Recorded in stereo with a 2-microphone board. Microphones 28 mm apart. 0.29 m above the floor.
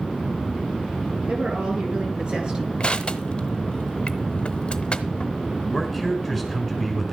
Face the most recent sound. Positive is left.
turn(degrees=0)  # may be behind; listen again after turning